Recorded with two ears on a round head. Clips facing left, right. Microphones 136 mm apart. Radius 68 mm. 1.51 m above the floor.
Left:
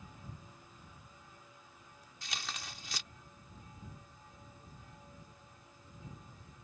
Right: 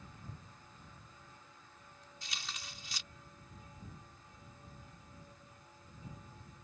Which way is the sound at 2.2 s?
50° left (ahead or behind).